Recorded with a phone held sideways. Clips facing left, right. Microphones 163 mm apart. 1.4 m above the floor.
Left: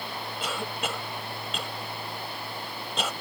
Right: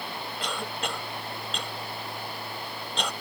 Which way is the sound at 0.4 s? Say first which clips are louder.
Left 1 dB; 5° left (ahead or behind).